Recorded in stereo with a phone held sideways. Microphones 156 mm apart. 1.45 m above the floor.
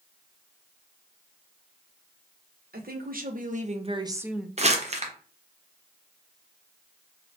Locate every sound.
2.7 s a woman speaking: 70° right (ahead or behind), 1.0 m; by 4.5 s 5° left (ahead or behind), 0.5 m
4.6 s crumpling: 45° right (ahead or behind), 0.8 m